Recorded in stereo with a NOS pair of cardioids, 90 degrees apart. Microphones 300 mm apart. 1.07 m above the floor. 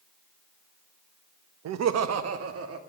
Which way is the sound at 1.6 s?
65° right.